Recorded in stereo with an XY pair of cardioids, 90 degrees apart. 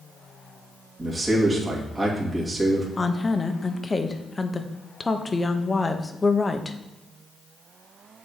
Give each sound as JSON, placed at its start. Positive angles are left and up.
{"t": 1.0, "sound": "a man speaking", "azimuth_deg": -25, "distance_m": 2.5}
{"t": 3.0, "sound": "a woman speaking", "azimuth_deg": 25, "distance_m": 1.0}